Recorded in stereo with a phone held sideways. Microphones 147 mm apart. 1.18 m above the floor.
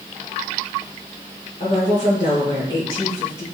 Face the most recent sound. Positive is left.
turn(degrees=70)  # may be behind; listen again after turning